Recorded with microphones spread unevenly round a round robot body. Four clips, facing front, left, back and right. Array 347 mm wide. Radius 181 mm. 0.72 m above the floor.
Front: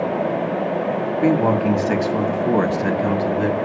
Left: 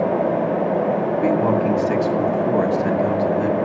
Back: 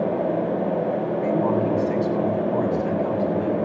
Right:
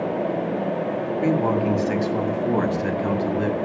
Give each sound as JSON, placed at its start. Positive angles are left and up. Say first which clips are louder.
{"t": 1.2, "sound": "a man speaking", "louder": "left 1 dB, front 6 dB", "azimuth_deg": 10, "distance_m": 6.0}